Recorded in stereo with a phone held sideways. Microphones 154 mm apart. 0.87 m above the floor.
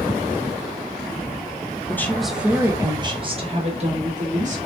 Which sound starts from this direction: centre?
A woman speaking, at 1.9 s.